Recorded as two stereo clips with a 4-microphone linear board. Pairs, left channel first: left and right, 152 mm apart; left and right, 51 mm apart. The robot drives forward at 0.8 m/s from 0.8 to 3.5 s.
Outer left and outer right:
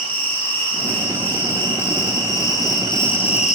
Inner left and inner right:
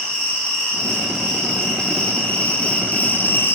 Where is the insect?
10° left (ahead or behind), 2.5 m; by 3.6 s 50° left (ahead or behind), 0.7 m.